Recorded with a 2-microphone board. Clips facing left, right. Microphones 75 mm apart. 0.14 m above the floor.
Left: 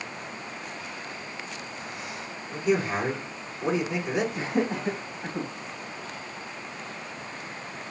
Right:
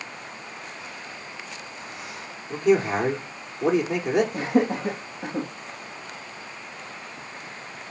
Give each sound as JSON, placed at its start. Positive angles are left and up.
{"t": 2.5, "sound": "a man speaking", "side_deg": -50, "distance_m": 5.0}
{"t": 4.3, "sound": "laughter", "side_deg": -55, "distance_m": 3.5}